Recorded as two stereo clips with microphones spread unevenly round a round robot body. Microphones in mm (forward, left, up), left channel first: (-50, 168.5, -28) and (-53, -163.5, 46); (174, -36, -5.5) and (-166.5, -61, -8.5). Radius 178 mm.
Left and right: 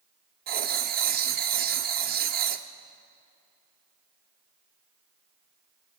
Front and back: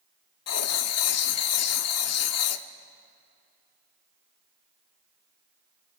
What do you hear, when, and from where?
0.5 s writing: 20° right, 0.9 m